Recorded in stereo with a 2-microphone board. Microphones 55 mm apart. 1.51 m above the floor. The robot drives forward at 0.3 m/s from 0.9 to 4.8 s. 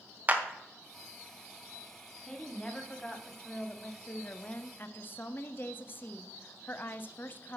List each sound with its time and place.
0.3 s a clap: 30° right (ahead or behind), 1.0 m
2.2 s a woman speaking: 15° left (ahead or behind), 1.2 m; by 7.6 s 40° left (ahead or behind), 0.6 m